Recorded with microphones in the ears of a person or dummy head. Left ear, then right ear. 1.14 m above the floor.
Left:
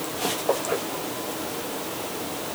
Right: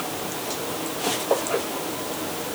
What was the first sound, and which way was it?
Only background noise.